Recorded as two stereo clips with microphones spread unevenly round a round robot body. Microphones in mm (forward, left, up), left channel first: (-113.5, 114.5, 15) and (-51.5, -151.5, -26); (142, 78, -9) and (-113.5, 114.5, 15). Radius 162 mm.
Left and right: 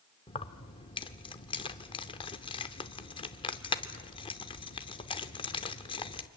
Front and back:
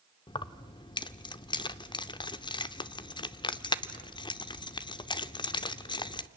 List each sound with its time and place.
0.3 s keys jangling: 30° left, 0.6 m